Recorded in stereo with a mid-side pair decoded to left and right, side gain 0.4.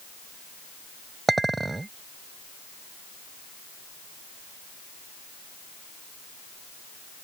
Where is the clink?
25° right.